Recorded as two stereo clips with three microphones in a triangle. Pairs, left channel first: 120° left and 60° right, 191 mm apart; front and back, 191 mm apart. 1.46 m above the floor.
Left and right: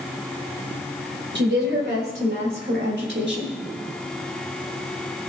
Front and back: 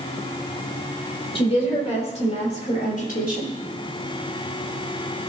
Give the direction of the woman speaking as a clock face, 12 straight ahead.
2 o'clock.